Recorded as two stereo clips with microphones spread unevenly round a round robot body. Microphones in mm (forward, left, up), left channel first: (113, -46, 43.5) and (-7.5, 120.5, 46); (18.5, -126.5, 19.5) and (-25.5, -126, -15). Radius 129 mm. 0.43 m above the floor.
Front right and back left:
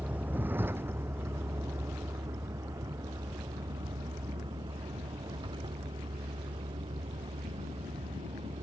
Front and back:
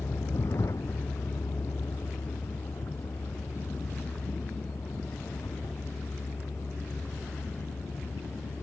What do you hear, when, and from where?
0.0 s a vehicle: 45° left; by 8.6 s 60° left